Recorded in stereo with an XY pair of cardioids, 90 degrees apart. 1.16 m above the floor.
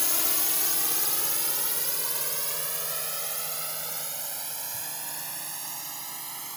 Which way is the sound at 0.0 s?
20° left.